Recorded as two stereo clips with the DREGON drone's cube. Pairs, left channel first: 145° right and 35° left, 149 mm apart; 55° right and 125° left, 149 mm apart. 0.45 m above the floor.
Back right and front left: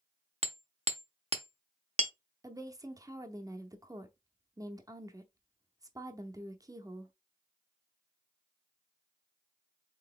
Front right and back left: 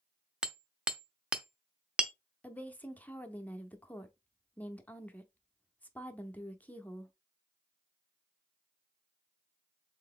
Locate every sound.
0.4 s hammering: 45° left, 0.6 m
2.4 s a woman speaking: 10° left, 0.7 m